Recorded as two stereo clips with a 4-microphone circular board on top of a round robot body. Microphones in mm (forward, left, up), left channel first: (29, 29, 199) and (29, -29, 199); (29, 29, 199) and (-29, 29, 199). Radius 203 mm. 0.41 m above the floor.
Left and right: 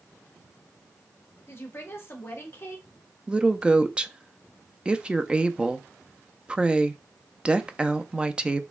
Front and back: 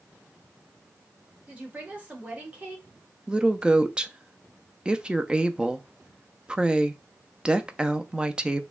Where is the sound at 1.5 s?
120° left, 1.6 m.